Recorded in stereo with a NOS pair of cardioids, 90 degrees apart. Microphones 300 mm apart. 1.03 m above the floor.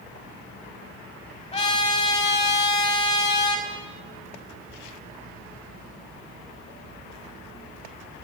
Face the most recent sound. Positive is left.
turn(degrees=20)